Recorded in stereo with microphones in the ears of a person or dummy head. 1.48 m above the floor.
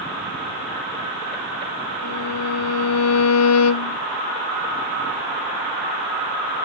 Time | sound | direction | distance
2.0 | a violin | 75° left (ahead or behind) | 0.7 m